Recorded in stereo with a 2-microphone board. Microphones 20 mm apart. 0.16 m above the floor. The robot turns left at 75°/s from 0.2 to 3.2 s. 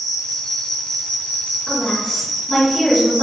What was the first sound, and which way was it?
An insect, 170° right.